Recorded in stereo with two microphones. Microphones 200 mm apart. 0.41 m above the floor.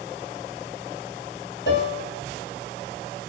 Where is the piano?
65° left (ahead or behind), 1.7 m.